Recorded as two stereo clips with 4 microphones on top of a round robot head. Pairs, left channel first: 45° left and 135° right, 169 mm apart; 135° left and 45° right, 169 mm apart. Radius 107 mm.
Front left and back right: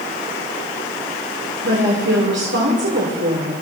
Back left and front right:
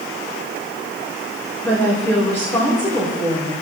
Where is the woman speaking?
150° right, 3.5 m.